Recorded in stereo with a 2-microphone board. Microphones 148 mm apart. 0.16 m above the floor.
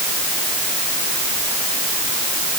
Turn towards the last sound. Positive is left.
No sound to turn to.